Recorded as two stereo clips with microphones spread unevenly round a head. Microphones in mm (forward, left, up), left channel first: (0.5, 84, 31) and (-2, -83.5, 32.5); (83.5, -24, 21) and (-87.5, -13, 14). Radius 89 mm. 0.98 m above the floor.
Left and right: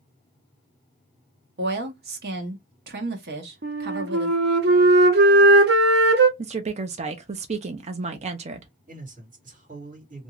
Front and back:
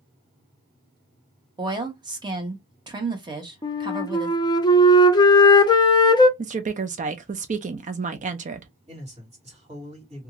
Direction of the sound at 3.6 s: 65° right.